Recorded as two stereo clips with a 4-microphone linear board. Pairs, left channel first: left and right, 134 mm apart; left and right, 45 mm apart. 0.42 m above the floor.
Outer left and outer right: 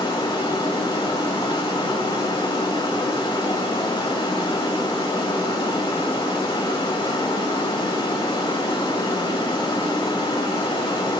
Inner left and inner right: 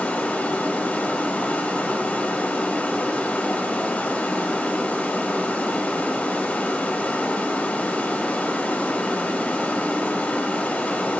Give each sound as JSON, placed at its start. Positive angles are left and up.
{"t": 0.0, "sound": "running water", "side_deg": 35, "distance_m": 2.0}